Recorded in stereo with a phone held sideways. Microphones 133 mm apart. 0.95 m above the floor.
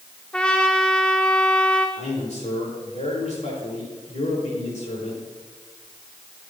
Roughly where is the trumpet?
Centre.